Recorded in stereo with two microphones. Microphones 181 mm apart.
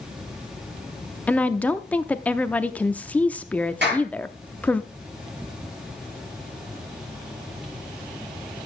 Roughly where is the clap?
Right.